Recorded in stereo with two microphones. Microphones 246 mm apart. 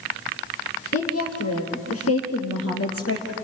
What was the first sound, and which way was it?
A woman speaking, 75° left (ahead or behind).